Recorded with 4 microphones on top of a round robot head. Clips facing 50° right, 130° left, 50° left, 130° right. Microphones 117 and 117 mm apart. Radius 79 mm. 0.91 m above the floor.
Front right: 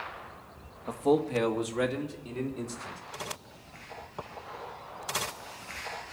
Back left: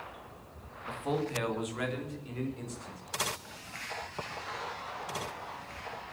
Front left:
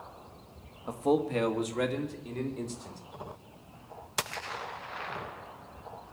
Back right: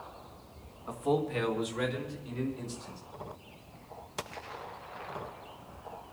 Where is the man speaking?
5° right, 1.5 m; by 3.0 s 10° left, 4 m.